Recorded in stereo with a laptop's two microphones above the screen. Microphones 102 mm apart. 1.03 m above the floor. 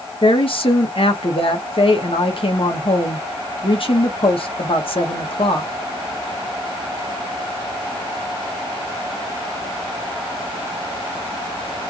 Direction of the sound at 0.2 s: 60° left (ahead or behind).